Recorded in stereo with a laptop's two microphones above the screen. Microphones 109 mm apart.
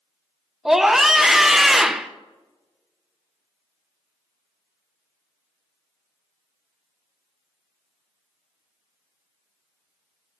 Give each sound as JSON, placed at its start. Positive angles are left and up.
{"t": 0.7, "sound": "a scream", "side_deg": -5, "distance_m": 0.7}